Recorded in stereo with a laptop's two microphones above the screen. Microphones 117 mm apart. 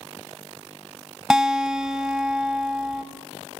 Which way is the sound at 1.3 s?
5° right (ahead or behind).